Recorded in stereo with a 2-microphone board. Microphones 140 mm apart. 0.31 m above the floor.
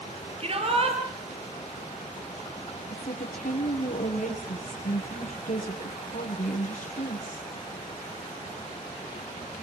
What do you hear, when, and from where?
0.4 s a shout: 45° right (ahead or behind), 7 m
2.9 s a woman speaking: 65° left (ahead or behind), 7 m